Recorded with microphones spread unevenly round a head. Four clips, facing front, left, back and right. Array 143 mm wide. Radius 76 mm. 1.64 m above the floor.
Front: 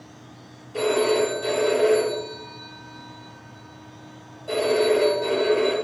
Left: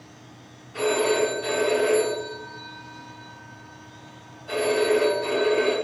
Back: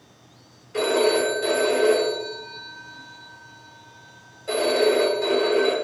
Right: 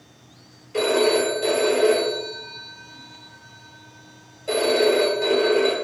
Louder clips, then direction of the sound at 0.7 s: Right 3 dB, even; 120° right.